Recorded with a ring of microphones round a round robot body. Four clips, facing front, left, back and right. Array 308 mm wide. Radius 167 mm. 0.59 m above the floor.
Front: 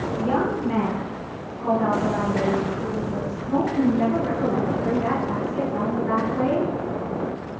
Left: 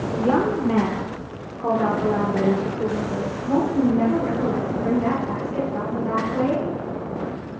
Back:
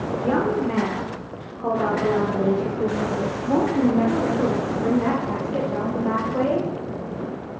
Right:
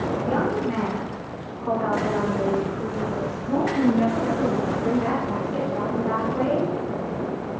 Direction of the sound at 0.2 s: 105° left.